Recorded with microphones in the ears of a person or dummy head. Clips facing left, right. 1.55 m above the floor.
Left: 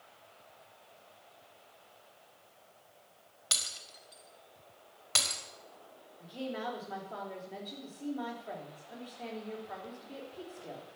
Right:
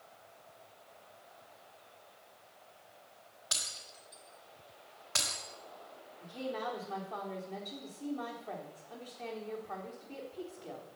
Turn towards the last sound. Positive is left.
turn(degrees=10)  # may be behind; listen again after turning